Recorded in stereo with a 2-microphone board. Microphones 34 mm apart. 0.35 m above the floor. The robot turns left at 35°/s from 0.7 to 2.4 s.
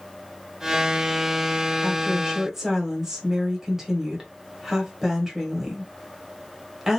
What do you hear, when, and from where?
1.8 s a woman speaking: 30° right (ahead or behind), 1.5 m; by 7.0 s 15° right (ahead or behind), 1.5 m